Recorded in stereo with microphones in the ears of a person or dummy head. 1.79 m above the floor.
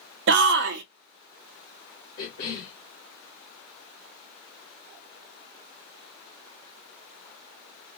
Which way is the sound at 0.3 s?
60° right (ahead or behind).